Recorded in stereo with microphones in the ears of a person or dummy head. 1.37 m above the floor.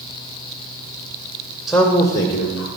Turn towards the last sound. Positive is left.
turn(degrees=70)  # may be behind; listen again after turning